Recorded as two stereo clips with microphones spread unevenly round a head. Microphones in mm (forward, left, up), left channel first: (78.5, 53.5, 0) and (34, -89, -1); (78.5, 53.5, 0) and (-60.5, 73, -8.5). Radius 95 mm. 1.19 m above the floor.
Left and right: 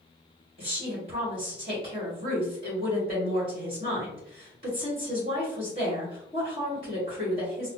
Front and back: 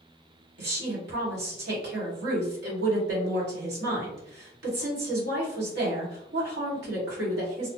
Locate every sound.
0.6 s a woman speaking: 170° right, 1.5 m